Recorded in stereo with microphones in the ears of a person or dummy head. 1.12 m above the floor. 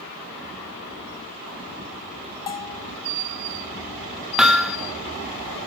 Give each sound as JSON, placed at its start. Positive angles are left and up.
{"t": 2.5, "sound": "a bell", "side_deg": 20, "distance_m": 0.6}
{"t": 4.4, "sound": "hammering", "side_deg": -5, "distance_m": 1.4}